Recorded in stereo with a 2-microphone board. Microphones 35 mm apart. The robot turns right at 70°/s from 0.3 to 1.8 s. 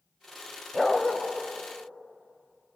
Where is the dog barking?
5° left (ahead or behind), 2 m; by 1.2 s 30° left (ahead or behind), 2 m.